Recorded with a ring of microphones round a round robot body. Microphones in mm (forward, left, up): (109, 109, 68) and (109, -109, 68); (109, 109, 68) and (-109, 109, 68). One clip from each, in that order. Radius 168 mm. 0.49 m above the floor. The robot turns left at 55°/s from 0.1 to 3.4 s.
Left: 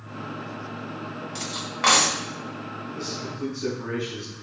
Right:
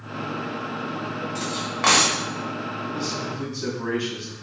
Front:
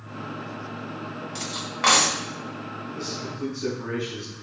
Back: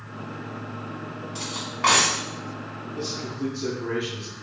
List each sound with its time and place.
1.4 s cutlery clinking: 50° left, 1.9 m; by 2.2 s 5° left, 1.9 m
2.9 s a man speaking: 35° right, 3.5 m; by 4.5 s 60° right, 3.5 m